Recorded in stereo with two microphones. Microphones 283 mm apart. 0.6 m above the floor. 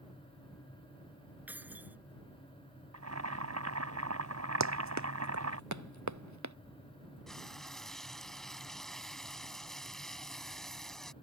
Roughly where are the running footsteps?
Right.